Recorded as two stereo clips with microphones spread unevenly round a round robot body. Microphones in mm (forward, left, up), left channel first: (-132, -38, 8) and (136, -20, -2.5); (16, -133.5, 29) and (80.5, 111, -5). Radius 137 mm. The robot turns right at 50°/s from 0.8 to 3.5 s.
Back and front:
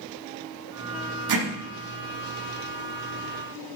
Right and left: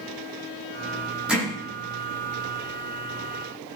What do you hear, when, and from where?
1.3 s hammering: 10° right, 8 m; by 1.5 s 5° right, 8 m